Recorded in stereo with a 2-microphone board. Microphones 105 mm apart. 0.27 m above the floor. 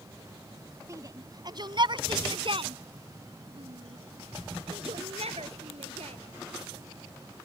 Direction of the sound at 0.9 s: 30° right (ahead or behind).